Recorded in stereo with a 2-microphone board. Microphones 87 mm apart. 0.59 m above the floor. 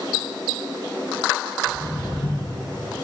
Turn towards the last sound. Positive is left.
turn(degrees=45)  # may be behind; listen again after turning